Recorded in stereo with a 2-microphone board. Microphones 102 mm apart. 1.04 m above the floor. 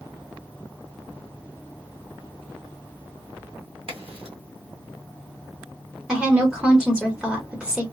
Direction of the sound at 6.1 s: 10° right (ahead or behind).